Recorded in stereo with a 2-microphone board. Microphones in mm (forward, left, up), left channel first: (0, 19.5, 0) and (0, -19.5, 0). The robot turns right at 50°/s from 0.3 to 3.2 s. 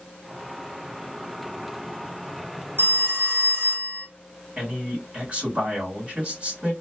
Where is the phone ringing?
60° right (ahead or behind), 0.8 m; by 4.1 s 65° right (ahead or behind), 0.8 m.